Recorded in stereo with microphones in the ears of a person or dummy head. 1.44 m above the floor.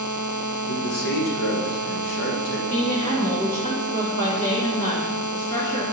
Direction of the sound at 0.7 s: 60° left (ahead or behind).